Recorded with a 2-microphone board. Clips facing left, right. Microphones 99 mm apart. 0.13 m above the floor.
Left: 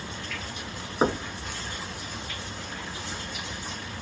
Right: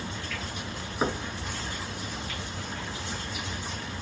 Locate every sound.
1.0 s knocking: 25° left (ahead or behind), 1.0 m